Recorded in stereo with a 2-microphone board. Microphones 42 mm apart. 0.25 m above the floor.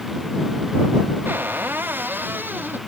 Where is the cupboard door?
55° right (ahead or behind).